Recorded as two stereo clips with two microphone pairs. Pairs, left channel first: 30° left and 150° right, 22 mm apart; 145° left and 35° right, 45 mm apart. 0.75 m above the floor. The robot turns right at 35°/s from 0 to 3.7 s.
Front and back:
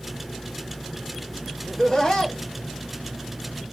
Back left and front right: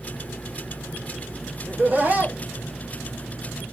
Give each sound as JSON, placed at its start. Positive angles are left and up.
{"t": 1.7, "sound": "laughter", "azimuth_deg": -30, "distance_m": 1.0}